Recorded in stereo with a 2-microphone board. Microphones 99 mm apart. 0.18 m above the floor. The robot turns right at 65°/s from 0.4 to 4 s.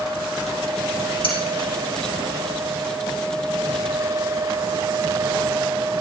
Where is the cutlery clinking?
65° left (ahead or behind), 5.5 m; by 1.4 s 60° left (ahead or behind), 5.5 m.